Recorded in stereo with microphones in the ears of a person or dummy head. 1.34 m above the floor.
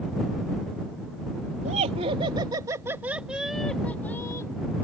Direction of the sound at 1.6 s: 40° right (ahead or behind).